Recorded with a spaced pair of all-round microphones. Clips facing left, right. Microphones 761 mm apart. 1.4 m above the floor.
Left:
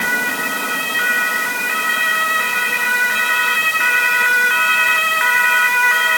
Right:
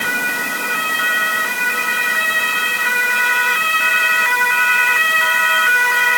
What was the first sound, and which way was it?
Only background noise.